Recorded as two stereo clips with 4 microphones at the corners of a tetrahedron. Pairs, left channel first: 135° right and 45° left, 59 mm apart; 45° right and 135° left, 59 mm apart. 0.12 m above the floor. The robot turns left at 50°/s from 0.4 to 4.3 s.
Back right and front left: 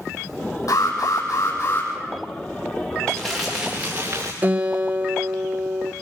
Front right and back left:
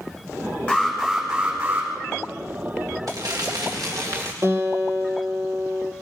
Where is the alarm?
110° right, 7 m; by 1.9 s 175° right, 7 m.